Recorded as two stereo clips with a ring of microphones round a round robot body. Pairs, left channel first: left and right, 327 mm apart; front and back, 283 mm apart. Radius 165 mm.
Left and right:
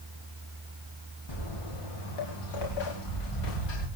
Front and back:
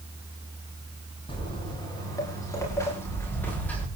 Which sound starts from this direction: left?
Footsteps, at 1.3 s.